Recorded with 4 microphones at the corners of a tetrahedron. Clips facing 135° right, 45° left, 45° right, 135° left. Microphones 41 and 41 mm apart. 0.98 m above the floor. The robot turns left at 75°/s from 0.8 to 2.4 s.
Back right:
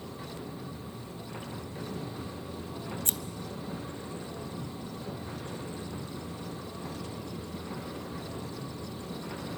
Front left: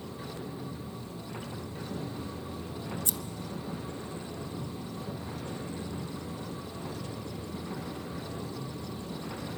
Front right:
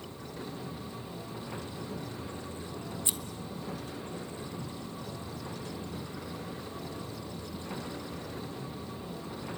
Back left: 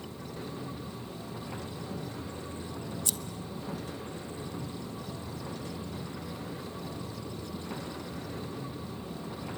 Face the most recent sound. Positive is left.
turn(degrees=-105)